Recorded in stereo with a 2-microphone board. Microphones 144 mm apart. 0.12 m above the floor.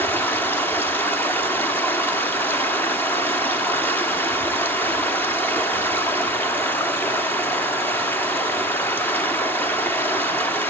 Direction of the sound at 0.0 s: 15° left (ahead or behind).